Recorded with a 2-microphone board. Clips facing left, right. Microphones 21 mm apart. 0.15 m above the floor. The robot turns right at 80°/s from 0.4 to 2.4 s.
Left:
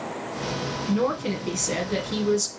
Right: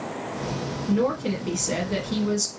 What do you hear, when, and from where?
0.9 s a woman speaking: 20° left (ahead or behind), 1.2 m; by 2.5 s 10° right (ahead or behind), 1.2 m